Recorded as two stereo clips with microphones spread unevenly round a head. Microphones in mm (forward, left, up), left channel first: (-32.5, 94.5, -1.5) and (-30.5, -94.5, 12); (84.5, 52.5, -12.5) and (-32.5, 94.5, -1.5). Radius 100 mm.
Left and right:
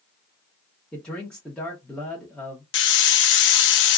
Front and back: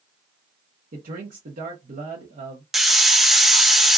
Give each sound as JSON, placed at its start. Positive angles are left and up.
{"t": 0.9, "sound": "a man speaking", "azimuth_deg": 175, "distance_m": 0.9}
{"t": 2.7, "sound": "a hiss", "azimuth_deg": 70, "distance_m": 0.6}